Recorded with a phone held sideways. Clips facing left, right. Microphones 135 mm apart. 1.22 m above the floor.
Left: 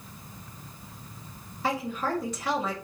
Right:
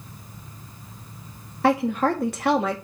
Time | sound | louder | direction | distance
1.6 | a woman speaking | right 9 dB | 65° right (ahead or behind) | 1.6 m